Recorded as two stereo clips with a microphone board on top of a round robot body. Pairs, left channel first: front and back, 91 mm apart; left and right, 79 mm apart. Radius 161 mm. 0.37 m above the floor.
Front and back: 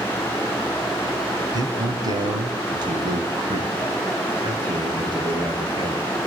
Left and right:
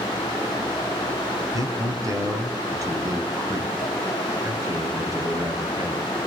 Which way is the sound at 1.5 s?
135° right.